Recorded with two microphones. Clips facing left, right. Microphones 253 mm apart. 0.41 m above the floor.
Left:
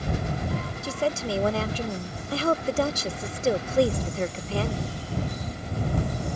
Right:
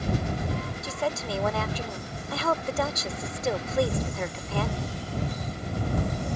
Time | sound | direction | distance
0.8 | a woman speaking | 30° left (ahead or behind) | ?